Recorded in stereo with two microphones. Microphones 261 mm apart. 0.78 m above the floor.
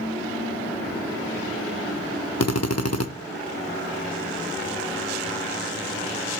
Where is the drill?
70° left (ahead or behind), 0.6 m.